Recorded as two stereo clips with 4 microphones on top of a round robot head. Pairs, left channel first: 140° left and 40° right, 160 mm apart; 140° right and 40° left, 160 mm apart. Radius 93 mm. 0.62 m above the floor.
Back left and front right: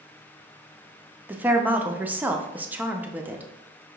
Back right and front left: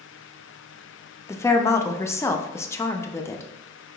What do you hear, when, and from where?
1.3 s a woman speaking: 100° right, 0.5 m